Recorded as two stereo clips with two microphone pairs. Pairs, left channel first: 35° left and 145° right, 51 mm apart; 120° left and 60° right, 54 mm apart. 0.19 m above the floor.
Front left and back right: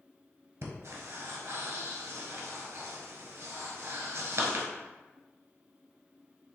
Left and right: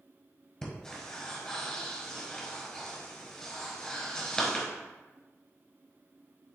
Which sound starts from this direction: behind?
Breathing, at 0.6 s.